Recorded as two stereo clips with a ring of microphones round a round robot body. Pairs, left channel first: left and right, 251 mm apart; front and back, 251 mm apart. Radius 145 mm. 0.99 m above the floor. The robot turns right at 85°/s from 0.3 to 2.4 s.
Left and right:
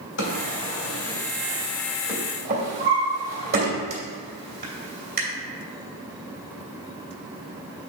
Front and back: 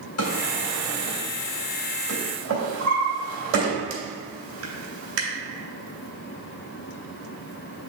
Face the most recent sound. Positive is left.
turn(degrees=-145)